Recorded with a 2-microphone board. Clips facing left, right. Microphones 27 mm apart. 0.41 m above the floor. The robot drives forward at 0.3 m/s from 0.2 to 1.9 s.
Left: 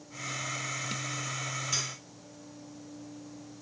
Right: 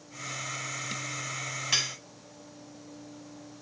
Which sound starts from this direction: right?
Cutlery clinking, at 1.7 s.